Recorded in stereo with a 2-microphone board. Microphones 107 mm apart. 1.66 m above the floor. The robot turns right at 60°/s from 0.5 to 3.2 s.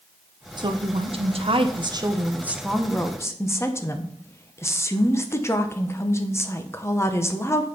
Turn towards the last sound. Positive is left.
turn(degrees=30)